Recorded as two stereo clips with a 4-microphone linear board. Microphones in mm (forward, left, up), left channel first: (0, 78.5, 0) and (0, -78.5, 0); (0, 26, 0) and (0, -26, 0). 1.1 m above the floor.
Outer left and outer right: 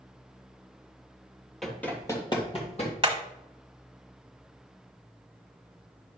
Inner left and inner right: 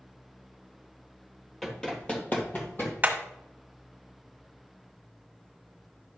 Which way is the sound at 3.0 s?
35° right (ahead or behind).